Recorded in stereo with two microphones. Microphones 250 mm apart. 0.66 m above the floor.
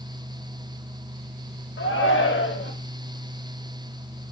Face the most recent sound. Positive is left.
turn(degrees=50)  # may be behind; listen again after turning